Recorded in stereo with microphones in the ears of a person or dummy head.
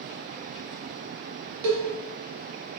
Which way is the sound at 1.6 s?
55° right (ahead or behind).